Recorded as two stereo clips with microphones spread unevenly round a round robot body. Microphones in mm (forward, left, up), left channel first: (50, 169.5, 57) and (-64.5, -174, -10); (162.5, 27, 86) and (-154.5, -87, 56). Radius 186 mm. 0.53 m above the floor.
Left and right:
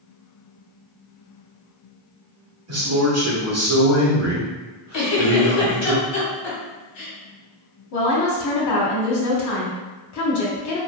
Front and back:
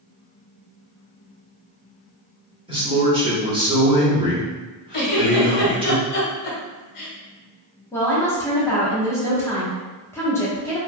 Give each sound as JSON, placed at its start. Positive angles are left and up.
{"t": 2.7, "sound": "a man speaking", "azimuth_deg": -95, "distance_m": 1.3}
{"t": 4.9, "sound": "a giggle", "azimuth_deg": 25, "distance_m": 1.1}
{"t": 7.9, "sound": "a woman speaking", "azimuth_deg": 105, "distance_m": 0.8}